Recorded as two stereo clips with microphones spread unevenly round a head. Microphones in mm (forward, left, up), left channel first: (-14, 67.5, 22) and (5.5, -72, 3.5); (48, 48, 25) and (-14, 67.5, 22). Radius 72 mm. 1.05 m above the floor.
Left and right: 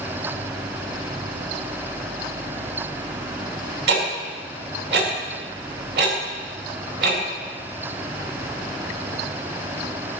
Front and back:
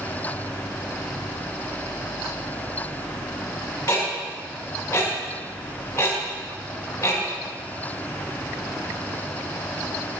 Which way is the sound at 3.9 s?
90° right.